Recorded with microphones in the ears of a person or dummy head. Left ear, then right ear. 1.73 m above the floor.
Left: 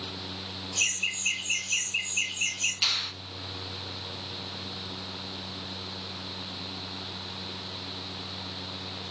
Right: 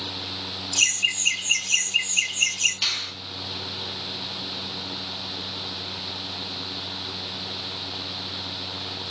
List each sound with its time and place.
0.8 s laughter: 25° right (ahead or behind), 1.2 m
2.8 s a finger snap: 5° right (ahead or behind), 1.3 m